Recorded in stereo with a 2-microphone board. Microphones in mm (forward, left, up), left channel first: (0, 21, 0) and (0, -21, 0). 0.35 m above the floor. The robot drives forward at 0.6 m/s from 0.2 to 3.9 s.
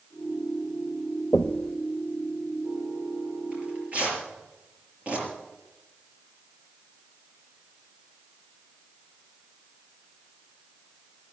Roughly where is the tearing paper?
Right.